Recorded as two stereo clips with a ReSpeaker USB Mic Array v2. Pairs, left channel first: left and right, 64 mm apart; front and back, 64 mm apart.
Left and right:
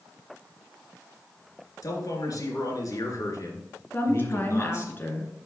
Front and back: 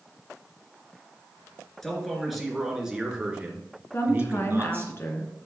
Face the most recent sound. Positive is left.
turn(degrees=40)